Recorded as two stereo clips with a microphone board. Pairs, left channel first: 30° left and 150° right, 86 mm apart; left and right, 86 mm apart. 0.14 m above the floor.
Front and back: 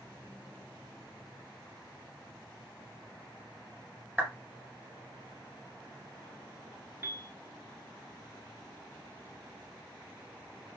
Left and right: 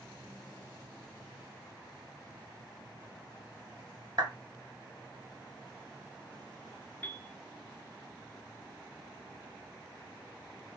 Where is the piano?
155° left, 0.7 m.